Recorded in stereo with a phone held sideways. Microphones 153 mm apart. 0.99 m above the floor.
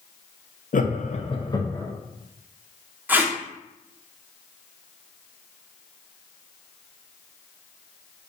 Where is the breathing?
I don't hear breathing.